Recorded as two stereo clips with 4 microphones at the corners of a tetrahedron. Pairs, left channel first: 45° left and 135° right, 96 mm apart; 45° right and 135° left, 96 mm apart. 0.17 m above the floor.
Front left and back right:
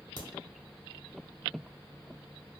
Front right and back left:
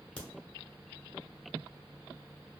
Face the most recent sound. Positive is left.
turn(degrees=30)